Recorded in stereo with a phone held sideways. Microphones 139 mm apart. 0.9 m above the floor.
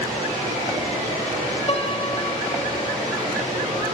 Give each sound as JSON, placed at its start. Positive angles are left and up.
{"t": 0.0, "sound": "a machine running", "side_deg": -85, "distance_m": 5.5}
{"t": 1.7, "sound": "a piano", "side_deg": 40, "distance_m": 0.9}